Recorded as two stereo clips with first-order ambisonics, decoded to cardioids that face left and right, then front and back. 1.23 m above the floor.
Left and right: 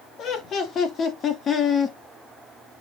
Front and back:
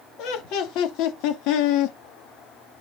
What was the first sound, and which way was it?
Laughter, 35° left.